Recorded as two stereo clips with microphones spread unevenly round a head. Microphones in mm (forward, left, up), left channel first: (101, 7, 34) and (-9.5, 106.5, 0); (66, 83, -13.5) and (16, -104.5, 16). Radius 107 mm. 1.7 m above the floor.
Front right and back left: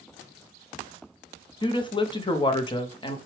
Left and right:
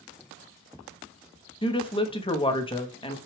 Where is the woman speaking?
10° left, 0.9 m.